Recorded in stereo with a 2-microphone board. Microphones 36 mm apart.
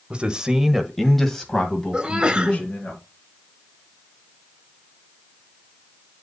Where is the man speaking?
30° right (ahead or behind), 1.1 m; by 2.9 s 25° left (ahead or behind), 3 m.